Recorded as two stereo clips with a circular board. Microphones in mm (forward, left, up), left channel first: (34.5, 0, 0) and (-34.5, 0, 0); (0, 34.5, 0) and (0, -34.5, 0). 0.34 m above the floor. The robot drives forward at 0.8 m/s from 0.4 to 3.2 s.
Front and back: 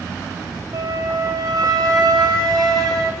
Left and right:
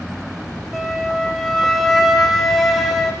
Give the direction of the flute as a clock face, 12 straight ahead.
6 o'clock.